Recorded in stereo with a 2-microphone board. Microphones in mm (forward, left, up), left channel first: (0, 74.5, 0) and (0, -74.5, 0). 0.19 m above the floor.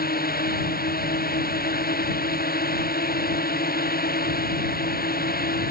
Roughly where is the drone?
Left.